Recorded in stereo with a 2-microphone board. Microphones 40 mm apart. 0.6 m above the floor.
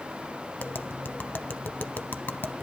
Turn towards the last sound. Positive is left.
turn(degrees=60)  # may be behind; listen again after turning